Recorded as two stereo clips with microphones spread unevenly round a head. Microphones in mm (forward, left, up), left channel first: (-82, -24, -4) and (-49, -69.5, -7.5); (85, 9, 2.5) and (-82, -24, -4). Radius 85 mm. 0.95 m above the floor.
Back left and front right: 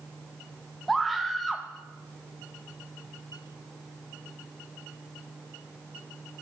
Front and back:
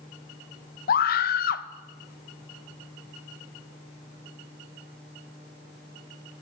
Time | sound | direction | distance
0.9 | a scream | 35° left | 0.7 m